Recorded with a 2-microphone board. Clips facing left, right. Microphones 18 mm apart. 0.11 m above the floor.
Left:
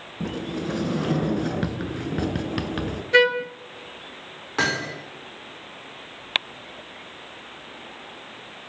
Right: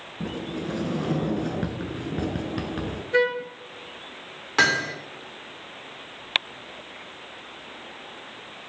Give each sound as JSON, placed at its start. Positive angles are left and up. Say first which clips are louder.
{"t": 0.2, "sound": "a sliding door", "louder": "left 2 dB", "side_deg": 30, "distance_m": 1.1}
{"t": 3.1, "sound": "a trumpet", "louder": "left 5 dB", "side_deg": 55, "distance_m": 0.7}
{"t": 4.6, "sound": "hammering", "louder": "right 3 dB", "side_deg": -30, "distance_m": 5.5}